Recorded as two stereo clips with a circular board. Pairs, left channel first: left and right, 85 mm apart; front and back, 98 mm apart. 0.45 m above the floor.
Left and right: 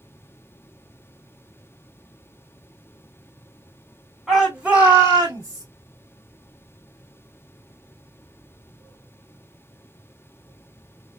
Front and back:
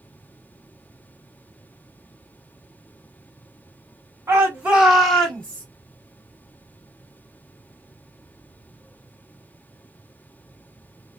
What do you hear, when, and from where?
4.3 s a shout: 175° right, 1.5 m; by 5.7 s 65° right, 1.8 m